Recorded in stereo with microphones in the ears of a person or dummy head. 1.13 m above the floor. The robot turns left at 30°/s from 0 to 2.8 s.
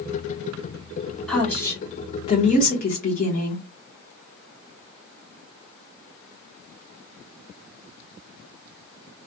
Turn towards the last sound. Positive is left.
turn(degrees=135)